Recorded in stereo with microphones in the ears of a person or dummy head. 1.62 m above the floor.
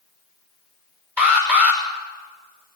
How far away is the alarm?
About 6 m.